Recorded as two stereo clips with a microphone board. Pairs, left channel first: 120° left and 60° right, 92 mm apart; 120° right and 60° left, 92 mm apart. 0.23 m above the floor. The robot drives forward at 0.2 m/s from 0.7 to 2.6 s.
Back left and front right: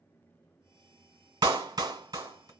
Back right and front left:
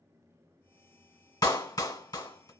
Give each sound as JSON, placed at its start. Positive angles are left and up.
{"t": 1.4, "sound": "a clap", "azimuth_deg": -90, "distance_m": 1.6}